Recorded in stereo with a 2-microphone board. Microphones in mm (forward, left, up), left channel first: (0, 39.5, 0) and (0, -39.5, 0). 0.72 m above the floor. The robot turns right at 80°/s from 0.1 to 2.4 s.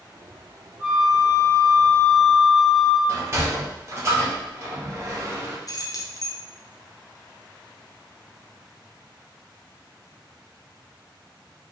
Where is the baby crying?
I don't hear a baby crying.